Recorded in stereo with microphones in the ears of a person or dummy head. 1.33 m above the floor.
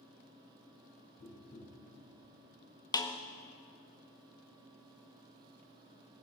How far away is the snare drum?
About 0.7 m.